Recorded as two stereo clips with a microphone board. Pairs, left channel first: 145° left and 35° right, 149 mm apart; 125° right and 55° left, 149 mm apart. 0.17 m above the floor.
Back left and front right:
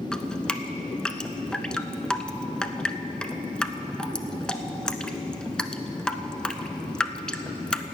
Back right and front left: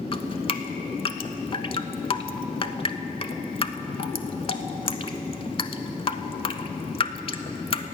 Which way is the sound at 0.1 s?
135° right.